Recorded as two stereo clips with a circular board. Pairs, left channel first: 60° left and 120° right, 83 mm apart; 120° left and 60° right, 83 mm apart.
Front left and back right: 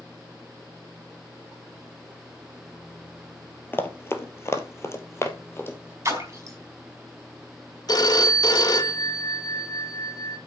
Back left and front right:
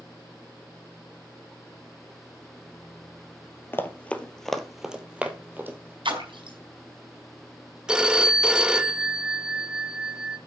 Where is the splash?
65° right, 4.5 m.